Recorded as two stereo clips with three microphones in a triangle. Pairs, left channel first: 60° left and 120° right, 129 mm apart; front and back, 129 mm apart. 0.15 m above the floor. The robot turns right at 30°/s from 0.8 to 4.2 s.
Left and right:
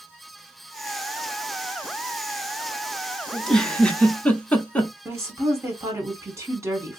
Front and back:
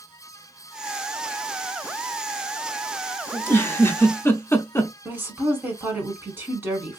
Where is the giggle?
20° right, 0.6 m; by 4.9 s 5° left, 0.6 m.